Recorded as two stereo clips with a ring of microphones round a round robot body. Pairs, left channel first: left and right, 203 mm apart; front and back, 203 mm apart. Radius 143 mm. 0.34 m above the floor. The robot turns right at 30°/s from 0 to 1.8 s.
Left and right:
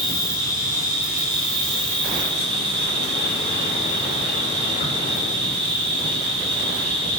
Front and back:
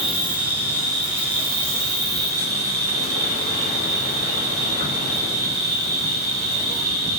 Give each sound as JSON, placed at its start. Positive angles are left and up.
{"t": 0.0, "sound": "an insect", "azimuth_deg": 110, "distance_m": 1.9}